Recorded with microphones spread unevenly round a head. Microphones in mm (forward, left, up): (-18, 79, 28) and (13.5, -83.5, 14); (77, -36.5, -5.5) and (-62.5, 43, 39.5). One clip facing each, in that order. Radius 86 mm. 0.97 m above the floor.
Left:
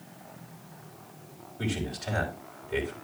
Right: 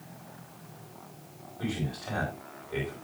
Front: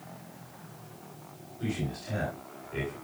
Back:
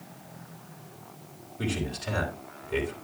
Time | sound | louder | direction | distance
1.6 | a man speaking | left 1 dB, back 2 dB | 160° left | 4.5 m